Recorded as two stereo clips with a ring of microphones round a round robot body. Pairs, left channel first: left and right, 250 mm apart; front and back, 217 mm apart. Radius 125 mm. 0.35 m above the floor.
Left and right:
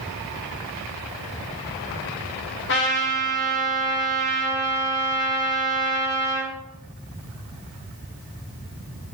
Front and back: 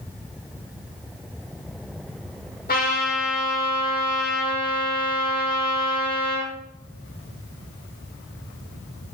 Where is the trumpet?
45° left, 7.5 m.